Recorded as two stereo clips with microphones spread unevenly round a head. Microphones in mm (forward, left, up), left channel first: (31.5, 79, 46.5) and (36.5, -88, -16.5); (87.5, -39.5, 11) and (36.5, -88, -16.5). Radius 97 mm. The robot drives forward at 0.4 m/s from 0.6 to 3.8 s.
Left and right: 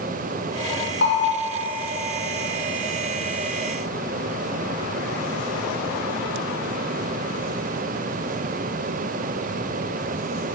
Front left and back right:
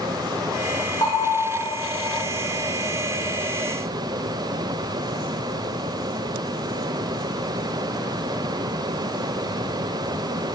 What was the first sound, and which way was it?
A bell, 95° left.